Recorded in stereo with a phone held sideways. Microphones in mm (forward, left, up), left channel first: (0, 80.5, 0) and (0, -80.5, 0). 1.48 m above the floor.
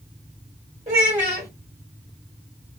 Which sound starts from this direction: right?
A child speaking, at 0.9 s.